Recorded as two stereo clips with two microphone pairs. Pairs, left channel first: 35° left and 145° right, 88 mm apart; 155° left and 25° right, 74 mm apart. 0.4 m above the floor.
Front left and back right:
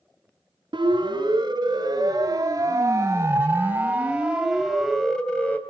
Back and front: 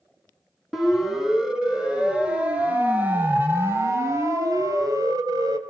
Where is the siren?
110° right, 5 m; by 5.6 s 35° right, 3 m.